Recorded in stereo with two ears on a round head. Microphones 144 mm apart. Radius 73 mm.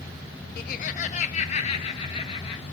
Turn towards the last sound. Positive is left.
turn(degrees=40)  # may be behind; listen again after turning